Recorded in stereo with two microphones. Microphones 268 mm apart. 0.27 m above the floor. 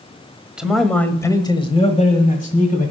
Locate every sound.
0.6 s a man speaking: 5° right (ahead or behind), 1.3 m; by 2.9 s 30° left (ahead or behind), 1.9 m